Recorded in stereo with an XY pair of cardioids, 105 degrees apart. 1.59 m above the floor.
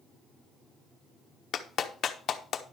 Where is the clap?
60° left, 1.0 m.